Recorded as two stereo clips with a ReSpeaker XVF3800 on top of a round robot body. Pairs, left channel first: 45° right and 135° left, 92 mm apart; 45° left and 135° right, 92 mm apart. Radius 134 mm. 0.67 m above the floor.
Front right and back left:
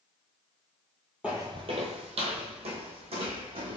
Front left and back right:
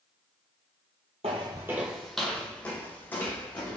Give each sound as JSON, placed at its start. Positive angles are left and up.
{"t": 1.2, "sound": "footsteps", "azimuth_deg": -145, "distance_m": 0.8}